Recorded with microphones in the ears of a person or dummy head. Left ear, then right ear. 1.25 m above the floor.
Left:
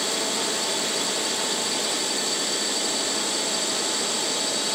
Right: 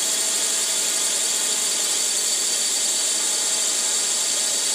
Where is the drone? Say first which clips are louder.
Right 1 dB; 60° right (ahead or behind).